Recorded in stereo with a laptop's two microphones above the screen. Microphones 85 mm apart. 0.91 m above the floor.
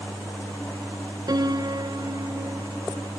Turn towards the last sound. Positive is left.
turn(degrees=-50)  # may be behind; listen again after turning